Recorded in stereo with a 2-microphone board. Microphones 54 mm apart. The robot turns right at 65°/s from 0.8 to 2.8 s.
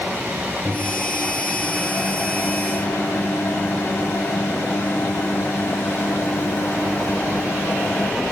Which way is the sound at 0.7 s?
15° right.